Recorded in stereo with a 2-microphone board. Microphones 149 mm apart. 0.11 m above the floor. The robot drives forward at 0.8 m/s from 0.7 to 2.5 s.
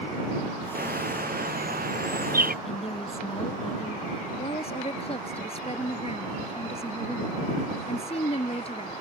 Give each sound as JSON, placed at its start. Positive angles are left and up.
{"t": 0.8, "sound": "a bird", "side_deg": -90}
{"t": 2.6, "sound": "a woman speaking", "side_deg": 40}
{"t": 4.4, "sound": "a woman speaking", "side_deg": 45}